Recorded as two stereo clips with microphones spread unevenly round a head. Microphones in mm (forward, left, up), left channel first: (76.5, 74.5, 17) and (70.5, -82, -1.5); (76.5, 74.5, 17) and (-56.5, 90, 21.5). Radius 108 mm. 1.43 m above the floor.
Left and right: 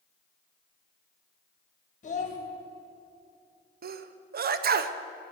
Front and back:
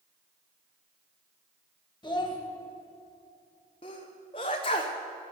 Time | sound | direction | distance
2.0 | a child speaking | 55° left | 1.3 m
3.8 | a sneeze | 70° right | 0.6 m